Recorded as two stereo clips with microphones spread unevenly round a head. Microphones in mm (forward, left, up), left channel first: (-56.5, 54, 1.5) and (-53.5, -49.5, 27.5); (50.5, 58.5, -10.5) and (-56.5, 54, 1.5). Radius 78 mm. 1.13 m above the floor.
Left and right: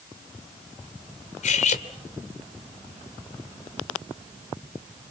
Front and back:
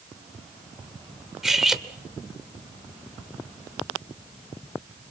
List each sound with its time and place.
1.4 s cutlery clinking: 95° left, 2 m